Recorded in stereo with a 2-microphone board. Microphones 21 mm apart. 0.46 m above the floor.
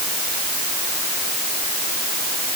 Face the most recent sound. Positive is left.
No sound to turn to.